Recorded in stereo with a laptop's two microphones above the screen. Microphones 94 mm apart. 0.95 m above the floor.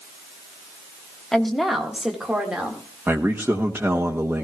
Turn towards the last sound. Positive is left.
turn(degrees=-20)  # may be behind; listen again after turning